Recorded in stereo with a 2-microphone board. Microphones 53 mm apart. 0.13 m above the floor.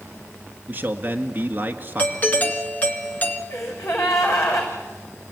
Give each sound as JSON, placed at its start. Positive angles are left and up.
{"t": 0.7, "sound": "a man speaking", "side_deg": -35, "distance_m": 1.7}
{"t": 2.0, "sound": "a doorbell", "side_deg": 30, "distance_m": 1.8}
{"t": 3.5, "sound": "a gasp", "side_deg": 60, "distance_m": 6.5}